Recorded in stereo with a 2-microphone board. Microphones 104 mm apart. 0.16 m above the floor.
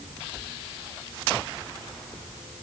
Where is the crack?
No crack in this recording.